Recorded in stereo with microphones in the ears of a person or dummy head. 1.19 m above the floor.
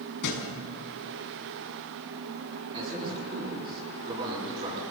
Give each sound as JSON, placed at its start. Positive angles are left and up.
{"t": 0.2, "sound": "a thud", "side_deg": 70, "distance_m": 5.5}
{"t": 2.7, "sound": "a man speaking", "side_deg": -20, "distance_m": 10.0}